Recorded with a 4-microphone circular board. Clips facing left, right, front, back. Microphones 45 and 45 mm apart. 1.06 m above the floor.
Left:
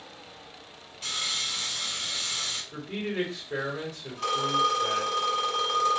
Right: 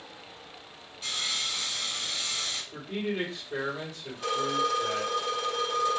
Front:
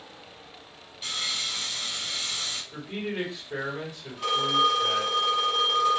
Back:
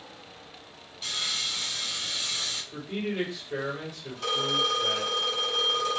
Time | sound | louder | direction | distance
1.0 | sawing | even, even | 65° left | 1.4 m
2.7 | a man speaking | even, back 2 dB | 75° left | 1.3 m
4.2 | a phone ringing | left 2 dB, front 4 dB | 75° left | 1.6 m